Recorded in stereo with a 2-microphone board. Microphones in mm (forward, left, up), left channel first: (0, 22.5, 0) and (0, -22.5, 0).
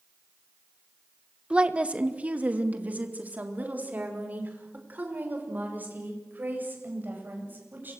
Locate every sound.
1.5 s a woman speaking: 25° right (ahead or behind), 1.5 m; by 7.9 s 40° right (ahead or behind), 10 m